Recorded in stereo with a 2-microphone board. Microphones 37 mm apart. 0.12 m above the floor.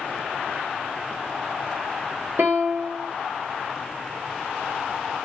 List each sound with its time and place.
2.4 s a piano: 80° right, 1.0 m